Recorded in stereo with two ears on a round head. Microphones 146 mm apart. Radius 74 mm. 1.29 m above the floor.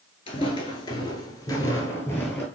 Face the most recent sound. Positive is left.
turn(degrees=10)  # may be behind; listen again after turning